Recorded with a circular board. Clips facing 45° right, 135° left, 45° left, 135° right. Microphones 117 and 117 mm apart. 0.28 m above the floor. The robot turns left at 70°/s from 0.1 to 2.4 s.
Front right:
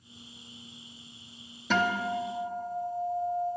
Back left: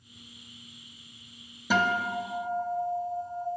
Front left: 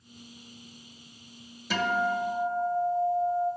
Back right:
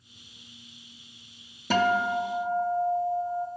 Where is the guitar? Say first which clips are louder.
Back left 1 dB, back right 4 dB; 145° right, 0.6 m; by 3.5 s 165° left, 0.6 m.